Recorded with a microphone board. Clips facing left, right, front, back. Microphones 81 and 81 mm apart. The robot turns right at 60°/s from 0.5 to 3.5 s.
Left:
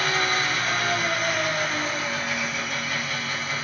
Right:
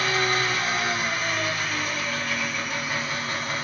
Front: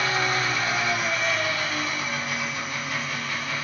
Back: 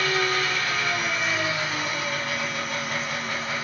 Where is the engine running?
55° left, 2.5 m; by 3.6 s 125° right, 2.5 m.